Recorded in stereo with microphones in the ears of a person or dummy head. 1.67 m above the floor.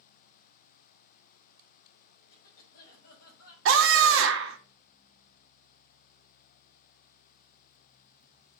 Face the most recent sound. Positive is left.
turn(degrees=-75)  # may be behind; listen again after turning